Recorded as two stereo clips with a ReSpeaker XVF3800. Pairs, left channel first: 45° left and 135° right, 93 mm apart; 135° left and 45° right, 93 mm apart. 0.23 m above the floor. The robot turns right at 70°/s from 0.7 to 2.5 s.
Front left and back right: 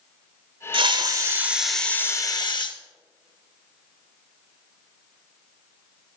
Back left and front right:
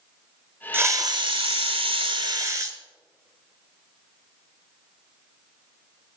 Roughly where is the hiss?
Right.